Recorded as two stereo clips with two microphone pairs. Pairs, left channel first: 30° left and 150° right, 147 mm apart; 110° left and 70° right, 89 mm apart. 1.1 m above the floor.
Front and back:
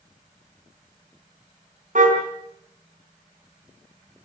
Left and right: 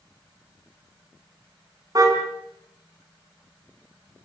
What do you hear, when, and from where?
1.9 s a car horn: 120° right, 4.5 m